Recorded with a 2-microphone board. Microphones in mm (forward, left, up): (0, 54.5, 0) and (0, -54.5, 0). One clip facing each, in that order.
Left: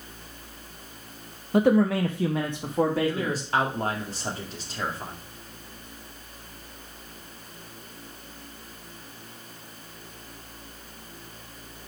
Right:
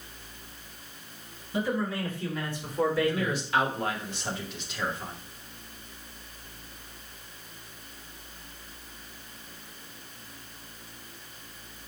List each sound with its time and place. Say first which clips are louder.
1.5 s a man speaking: left 9 dB; 55° left (ahead or behind), 0.7 m; by 3.4 s 45° left (ahead or behind), 1.7 m
3.0 s a man speaking: left 1 dB; 35° left (ahead or behind), 2.0 m